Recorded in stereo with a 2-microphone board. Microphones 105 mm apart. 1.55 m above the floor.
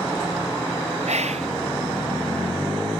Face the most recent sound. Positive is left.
turn(degrees=-85)